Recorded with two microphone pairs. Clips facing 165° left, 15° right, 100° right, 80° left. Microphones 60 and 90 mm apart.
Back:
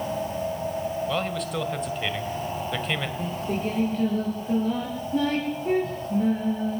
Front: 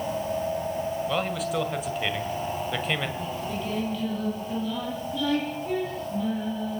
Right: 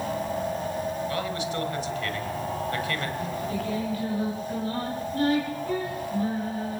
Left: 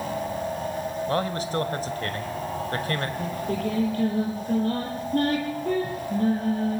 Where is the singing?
115° left, 9 m.